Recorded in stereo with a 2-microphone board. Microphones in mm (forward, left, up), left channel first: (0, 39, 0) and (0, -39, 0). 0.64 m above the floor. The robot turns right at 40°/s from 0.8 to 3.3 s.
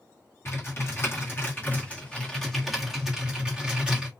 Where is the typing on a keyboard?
105° left, 1.4 m; by 4.1 s 155° right, 1.4 m.